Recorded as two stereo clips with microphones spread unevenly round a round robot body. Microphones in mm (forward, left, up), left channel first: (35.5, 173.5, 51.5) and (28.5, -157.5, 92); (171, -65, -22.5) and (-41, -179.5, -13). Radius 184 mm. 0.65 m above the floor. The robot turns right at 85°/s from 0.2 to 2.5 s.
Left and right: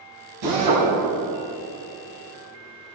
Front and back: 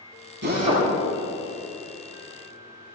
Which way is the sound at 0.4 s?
110° right.